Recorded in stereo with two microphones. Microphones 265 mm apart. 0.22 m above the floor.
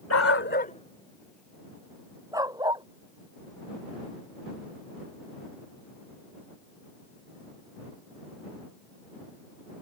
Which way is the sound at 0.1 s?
65° left (ahead or behind).